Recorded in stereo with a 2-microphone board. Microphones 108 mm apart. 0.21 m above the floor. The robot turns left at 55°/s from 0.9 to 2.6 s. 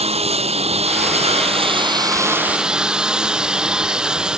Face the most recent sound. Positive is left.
turn(degrees=-170)